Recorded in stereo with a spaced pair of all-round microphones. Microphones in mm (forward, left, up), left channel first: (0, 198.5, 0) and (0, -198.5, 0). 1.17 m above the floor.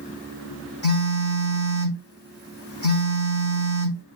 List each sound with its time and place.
0.8 s a phone buzzing: 25° left (ahead or behind), 1.5 m